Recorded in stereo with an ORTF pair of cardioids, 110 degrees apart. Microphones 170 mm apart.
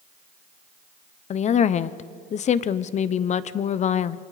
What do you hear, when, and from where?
1.3 s a woman speaking: 45° left, 0.9 m